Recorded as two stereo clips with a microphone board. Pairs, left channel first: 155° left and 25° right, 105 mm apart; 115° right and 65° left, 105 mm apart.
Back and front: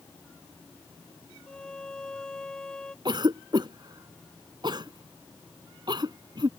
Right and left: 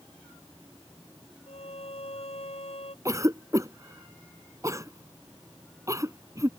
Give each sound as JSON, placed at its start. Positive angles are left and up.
{"t": 1.5, "sound": "a violin", "azimuth_deg": -120}
{"t": 3.0, "sound": "a cough", "azimuth_deg": 10}